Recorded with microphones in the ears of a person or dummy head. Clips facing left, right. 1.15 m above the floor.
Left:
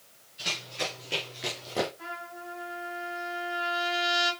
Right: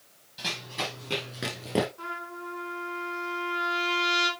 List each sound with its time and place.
0.4 s running footsteps: 75° right (ahead or behind), 5.5 m
2.0 s a trumpet: 85° right, 5.5 m